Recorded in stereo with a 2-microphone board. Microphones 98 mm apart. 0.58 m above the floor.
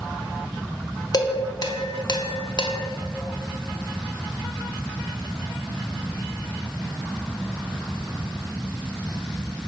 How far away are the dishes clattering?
About 0.5 m.